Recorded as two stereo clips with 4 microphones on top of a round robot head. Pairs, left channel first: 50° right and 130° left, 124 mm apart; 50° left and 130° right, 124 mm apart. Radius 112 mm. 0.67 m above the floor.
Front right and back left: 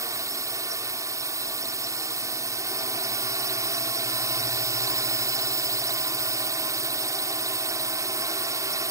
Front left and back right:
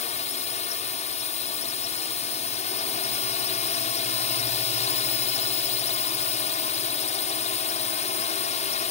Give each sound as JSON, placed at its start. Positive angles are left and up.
{"t": 0.0, "sound": "a drone", "azimuth_deg": 65}